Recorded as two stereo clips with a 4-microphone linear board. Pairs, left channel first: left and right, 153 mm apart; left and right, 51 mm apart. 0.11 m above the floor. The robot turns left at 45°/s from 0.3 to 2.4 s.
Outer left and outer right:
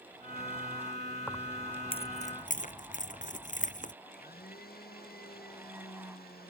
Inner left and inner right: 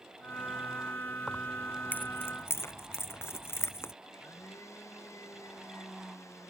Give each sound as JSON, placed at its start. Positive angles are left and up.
{"t": 1.3, "sound": "keys jangling", "side_deg": 5}
{"t": 4.0, "sound": "a blender", "side_deg": 85}